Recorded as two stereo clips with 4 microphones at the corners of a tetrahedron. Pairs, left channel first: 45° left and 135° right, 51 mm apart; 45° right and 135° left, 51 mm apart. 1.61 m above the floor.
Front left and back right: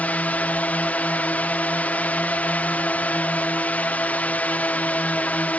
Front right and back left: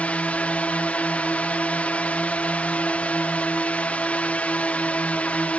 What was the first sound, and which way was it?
A drone, straight ahead.